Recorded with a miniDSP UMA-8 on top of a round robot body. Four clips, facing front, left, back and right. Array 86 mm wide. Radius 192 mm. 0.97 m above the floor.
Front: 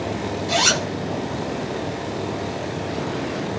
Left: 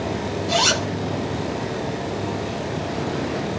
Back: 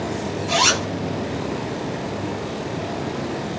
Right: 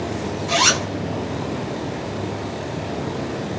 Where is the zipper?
115° right, 1.2 m.